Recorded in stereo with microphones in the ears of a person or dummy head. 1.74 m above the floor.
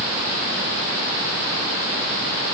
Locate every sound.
Only background noise.